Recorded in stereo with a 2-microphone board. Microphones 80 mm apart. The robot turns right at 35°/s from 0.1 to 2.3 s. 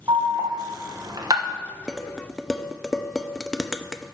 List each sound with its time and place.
0.1 s an alarm: 55° right (ahead or behind), 1.1 m; by 1.6 s 50° right (ahead or behind), 1.1 m
1.9 s dishes clattering: 5° right (ahead or behind), 0.5 m; by 4.2 s 5° left (ahead or behind), 0.5 m